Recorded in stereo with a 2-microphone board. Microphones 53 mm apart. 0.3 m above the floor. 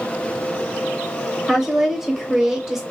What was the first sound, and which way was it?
A woman speaking, 10° right (ahead or behind).